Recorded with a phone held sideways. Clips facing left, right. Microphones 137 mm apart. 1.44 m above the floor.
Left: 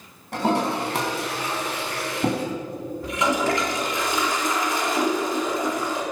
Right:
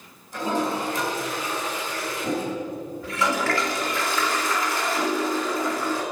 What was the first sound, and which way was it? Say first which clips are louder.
A toilet flushing: left 3 dB; 70° left (ahead or behind).